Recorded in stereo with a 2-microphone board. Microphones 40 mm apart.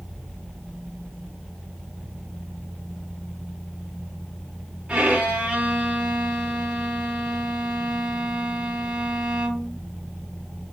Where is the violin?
20° right (ahead or behind), 1.3 m.